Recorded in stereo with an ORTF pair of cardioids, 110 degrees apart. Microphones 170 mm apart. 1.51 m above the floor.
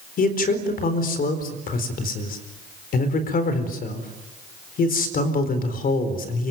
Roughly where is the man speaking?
Ahead left.